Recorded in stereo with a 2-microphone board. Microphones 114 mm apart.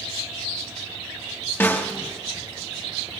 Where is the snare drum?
20° left (ahead or behind), 1.2 m.